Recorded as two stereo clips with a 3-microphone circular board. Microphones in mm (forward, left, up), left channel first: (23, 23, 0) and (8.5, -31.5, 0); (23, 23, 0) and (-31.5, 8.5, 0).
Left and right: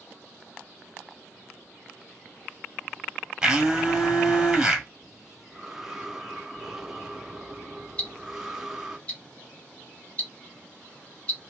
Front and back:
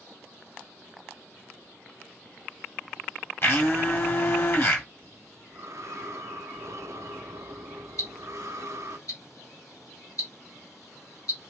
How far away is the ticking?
About 1.0 m.